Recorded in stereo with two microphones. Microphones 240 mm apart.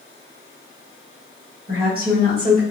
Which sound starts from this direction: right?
A woman speaking, at 1.7 s.